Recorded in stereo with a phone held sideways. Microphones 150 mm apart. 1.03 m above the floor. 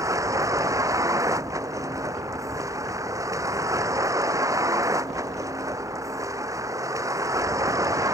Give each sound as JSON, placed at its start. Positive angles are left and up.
{"t": 0.0, "sound": "a vehicle", "side_deg": -20}